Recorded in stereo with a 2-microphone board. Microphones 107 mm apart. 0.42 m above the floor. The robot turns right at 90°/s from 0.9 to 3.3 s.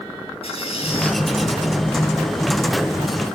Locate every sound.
0.4 s a squeak: 75° left (ahead or behind), 2.5 m; by 1.2 s 60° left (ahead or behind), 2.5 m